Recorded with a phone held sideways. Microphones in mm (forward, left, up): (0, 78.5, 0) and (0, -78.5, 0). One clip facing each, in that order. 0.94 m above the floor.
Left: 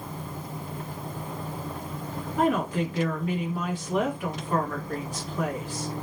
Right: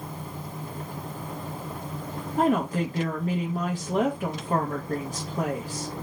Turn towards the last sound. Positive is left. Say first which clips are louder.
# right 1 dB
turn(degrees=-40)  # may be behind; listen again after turning